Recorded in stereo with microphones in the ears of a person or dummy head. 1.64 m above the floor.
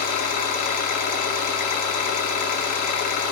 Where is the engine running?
40° left (ahead or behind), 1.7 m.